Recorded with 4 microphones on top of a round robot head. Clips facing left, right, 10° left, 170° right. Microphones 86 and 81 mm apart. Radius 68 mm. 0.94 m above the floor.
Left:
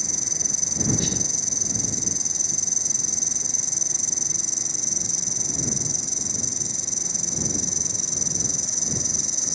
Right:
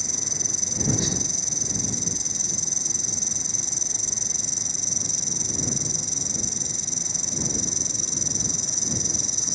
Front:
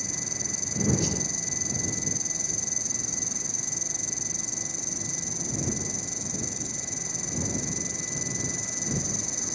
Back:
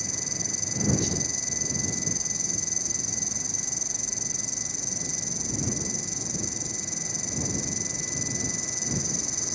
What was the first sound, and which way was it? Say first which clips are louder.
An insect: even, even; 55° right.